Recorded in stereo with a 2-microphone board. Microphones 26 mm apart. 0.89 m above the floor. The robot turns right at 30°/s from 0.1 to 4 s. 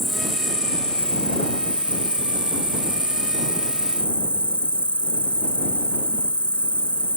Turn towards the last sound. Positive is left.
turn(degrees=125)